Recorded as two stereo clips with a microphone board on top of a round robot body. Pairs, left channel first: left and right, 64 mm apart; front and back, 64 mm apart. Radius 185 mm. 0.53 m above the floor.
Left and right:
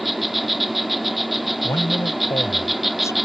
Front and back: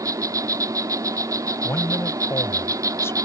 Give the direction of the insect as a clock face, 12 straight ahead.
6 o'clock.